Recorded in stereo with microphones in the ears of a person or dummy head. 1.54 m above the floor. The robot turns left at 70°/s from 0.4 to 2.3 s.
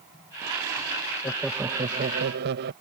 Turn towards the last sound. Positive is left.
turn(degrees=-60)